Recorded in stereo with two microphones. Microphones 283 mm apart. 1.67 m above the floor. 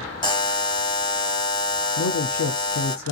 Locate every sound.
0.2 s a buzzer: 15° left (ahead or behind), 0.7 m
2.0 s a man speaking: 80° left, 0.6 m